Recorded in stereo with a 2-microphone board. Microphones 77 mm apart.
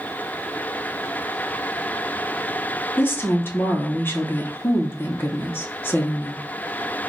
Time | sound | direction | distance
3.0 | a woman speaking | 30° left (ahead or behind) | 0.9 m